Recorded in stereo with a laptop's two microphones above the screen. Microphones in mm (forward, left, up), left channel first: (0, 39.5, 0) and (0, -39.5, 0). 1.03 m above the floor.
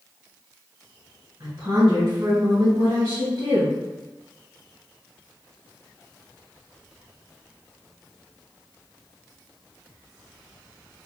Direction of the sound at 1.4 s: 50° right (ahead or behind).